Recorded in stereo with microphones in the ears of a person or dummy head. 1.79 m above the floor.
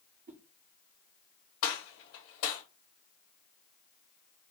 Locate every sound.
0.3 s a whoosh: 45° right (ahead or behind), 0.5 m
1.6 s a gunshot: 75° left (ahead or behind), 1.8 m